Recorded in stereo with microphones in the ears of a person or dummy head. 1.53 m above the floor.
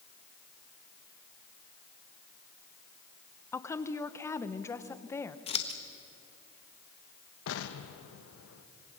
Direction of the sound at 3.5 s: 10° left (ahead or behind).